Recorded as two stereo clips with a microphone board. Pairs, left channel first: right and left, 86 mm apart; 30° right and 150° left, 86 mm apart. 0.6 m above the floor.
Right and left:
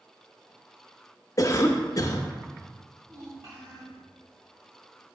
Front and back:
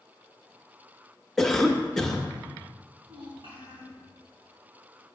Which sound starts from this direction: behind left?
A child speaking, at 3.0 s.